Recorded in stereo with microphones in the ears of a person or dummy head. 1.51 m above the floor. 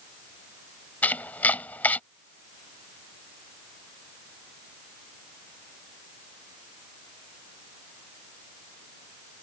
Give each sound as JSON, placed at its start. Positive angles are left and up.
{"t": 1.0, "sound": "chopping", "side_deg": 10}